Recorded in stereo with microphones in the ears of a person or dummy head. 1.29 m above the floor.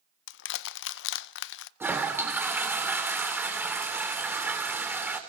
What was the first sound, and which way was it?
Crushing, 65° left (ahead or behind).